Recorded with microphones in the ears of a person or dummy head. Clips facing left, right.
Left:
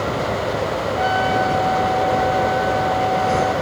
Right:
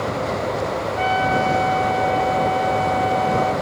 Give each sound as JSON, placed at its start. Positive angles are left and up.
{"t": 1.0, "sound": "a trumpet", "side_deg": -25, "distance_m": 9.5}